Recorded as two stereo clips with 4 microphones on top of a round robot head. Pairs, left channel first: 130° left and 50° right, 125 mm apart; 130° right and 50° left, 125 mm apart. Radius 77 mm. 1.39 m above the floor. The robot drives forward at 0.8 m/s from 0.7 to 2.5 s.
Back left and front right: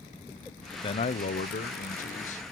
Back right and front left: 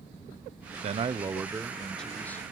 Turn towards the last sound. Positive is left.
turn(degrees=155)